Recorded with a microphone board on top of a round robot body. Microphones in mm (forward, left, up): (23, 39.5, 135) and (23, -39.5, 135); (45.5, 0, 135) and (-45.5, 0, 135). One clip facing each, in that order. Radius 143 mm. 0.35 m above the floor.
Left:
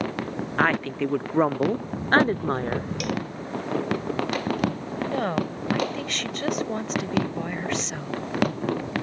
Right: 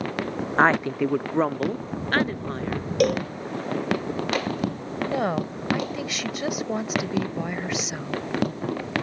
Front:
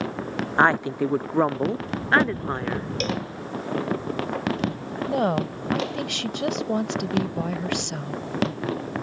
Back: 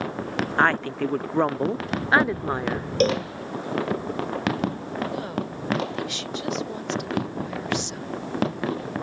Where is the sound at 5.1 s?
10° right.